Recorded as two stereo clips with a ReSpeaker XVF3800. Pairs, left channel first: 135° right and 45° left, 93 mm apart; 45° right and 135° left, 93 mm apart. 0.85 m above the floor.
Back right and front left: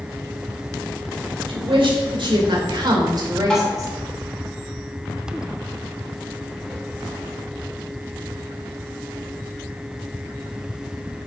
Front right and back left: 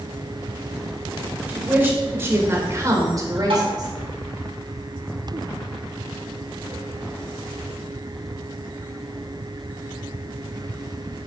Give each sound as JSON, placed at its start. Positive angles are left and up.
{"t": 1.5, "sound": "a woman speaking", "azimuth_deg": 65, "distance_m": 3.0}
{"t": 3.5, "sound": "tapping", "azimuth_deg": 145, "distance_m": 3.5}